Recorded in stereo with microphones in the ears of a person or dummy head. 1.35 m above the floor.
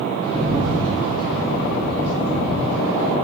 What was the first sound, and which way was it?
A rattle, 30° left (ahead or behind).